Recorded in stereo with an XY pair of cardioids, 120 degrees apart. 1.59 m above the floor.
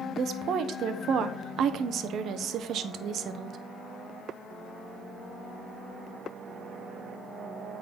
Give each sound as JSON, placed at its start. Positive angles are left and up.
{"t": 0.2, "sound": "a woman speaking", "azimuth_deg": -55, "distance_m": 1.1}